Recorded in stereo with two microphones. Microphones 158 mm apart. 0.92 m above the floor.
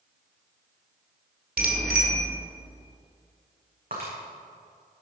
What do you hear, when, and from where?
1.6 s a bicycle bell: 75° right (ahead or behind), 2 m
3.9 s breaking glass: 65° right (ahead or behind), 6.5 m